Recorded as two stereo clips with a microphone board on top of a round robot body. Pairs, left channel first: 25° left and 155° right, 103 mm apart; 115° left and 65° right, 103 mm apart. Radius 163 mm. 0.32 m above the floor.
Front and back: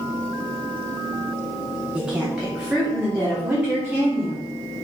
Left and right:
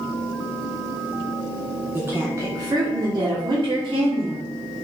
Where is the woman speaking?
100° right, 1.3 m; by 4.5 s 80° right, 2 m.